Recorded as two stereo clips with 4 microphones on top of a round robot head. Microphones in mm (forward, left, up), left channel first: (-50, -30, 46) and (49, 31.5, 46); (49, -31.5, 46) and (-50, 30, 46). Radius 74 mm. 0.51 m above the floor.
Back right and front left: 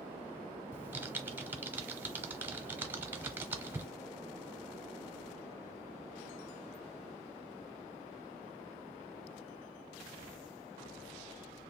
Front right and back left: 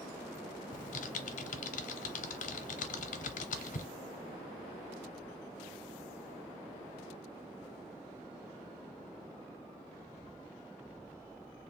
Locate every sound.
0.7 s typing on a keyboard: 40° right, 0.6 m